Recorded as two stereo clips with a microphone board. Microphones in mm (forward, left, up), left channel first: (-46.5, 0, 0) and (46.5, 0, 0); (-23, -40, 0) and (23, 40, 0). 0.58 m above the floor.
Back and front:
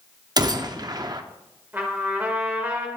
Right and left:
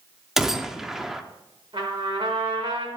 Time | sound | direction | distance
0.4 | a gunshot | 25° right | 0.5 m
1.7 | a trumpet | 70° left | 1.6 m